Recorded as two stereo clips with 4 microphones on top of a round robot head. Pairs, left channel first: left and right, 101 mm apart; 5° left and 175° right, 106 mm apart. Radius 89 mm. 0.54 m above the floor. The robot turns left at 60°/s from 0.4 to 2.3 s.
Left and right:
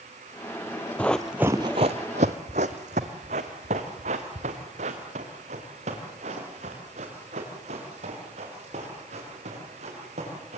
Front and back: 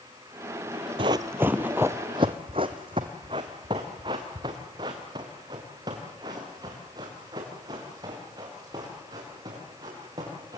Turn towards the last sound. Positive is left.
turn(degrees=-110)